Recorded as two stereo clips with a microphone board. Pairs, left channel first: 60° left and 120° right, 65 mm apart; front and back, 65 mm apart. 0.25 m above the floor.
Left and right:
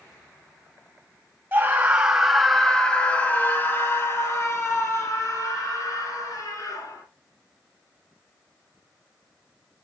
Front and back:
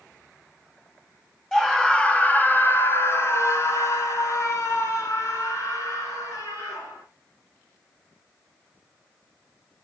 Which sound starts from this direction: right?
A scream, at 1.5 s.